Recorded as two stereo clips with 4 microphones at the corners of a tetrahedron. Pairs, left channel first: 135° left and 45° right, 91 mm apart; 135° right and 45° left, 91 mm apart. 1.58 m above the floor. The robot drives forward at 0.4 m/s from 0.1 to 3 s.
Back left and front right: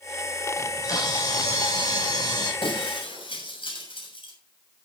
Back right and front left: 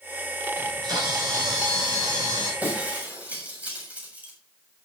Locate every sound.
0.6 s a camera shutter: 85° left, 8 m; by 2.5 s 90° left, 8 m
2.6 s breaking glass: 120° left, 6.5 m